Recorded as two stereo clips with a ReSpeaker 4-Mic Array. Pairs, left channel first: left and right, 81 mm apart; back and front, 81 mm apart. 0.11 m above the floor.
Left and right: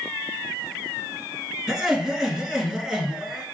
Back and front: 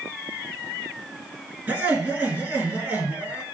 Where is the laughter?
10° right, 1.4 m.